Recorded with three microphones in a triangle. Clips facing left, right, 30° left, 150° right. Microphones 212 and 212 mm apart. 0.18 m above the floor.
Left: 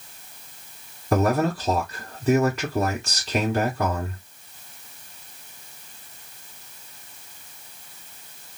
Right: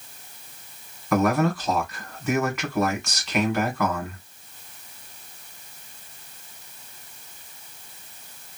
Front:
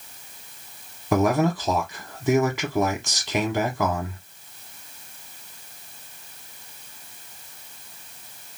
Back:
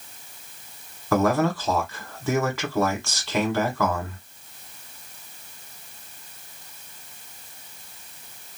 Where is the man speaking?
85° left, 1.1 m.